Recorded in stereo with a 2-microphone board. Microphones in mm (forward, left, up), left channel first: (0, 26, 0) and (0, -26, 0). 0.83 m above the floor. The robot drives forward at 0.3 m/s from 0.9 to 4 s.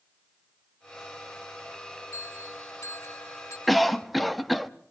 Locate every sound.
2.1 s a bell: 65° left (ahead or behind), 2.5 m; by 3.6 s 70° left (ahead or behind), 2 m
3.7 s a cough: centre (ahead or behind), 0.8 m